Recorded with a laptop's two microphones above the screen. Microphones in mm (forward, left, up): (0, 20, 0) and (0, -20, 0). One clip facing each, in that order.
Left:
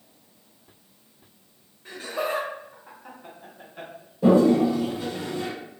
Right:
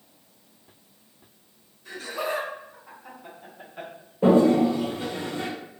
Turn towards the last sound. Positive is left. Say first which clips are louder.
# even
turn(degrees=-40)  # may be behind; listen again after turning